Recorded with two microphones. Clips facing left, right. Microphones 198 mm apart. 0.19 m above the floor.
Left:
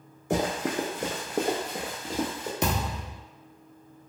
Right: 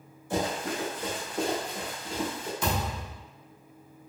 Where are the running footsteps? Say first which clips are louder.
Left 3 dB; 75° left (ahead or behind), 0.7 m; by 2.5 s 40° left (ahead or behind), 1.3 m.